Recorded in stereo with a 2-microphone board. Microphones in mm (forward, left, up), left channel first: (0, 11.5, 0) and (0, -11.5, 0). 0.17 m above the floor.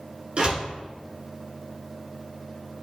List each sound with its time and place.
0.4 s a door slam: 45° right (ahead or behind), 1.5 m